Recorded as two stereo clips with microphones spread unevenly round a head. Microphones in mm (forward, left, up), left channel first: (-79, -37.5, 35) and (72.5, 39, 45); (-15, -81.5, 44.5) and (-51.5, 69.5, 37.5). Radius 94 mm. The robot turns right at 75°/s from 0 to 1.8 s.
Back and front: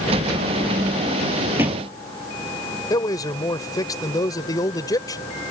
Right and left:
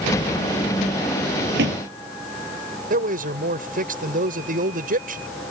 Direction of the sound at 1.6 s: 105° left.